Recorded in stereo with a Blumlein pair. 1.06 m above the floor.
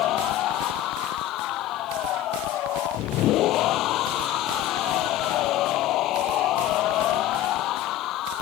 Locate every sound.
0.0 s a machine running: 35° left